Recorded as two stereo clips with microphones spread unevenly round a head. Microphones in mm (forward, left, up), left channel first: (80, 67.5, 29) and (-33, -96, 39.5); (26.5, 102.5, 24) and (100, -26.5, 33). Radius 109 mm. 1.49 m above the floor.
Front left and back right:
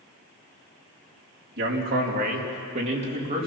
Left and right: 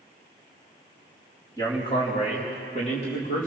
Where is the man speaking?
170° right, 3 m; by 3.5 s 170° left, 3.5 m.